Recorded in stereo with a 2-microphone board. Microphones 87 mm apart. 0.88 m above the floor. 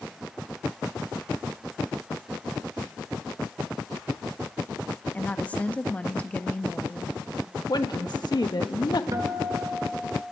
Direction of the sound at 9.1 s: 40° right (ahead or behind).